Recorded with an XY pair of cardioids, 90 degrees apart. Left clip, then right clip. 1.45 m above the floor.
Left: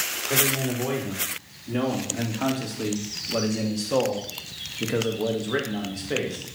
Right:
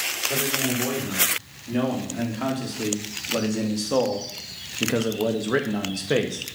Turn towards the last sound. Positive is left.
turn(degrees=-60)